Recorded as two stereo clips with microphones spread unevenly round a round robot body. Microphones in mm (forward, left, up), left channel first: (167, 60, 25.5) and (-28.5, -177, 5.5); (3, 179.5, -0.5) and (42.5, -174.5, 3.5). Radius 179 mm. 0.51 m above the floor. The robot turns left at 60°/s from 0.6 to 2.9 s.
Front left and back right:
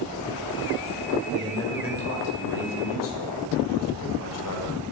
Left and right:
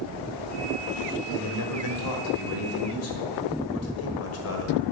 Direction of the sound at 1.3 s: 145° left.